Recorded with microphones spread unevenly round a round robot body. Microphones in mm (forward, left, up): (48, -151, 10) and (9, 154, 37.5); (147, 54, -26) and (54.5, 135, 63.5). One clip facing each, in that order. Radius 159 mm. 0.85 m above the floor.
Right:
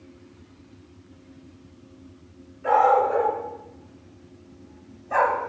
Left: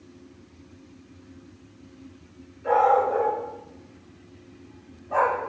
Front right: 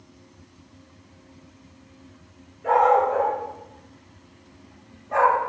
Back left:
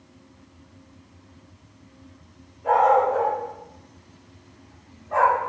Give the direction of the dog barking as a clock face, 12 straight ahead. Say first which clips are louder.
Right 1 dB, even; 4 o'clock.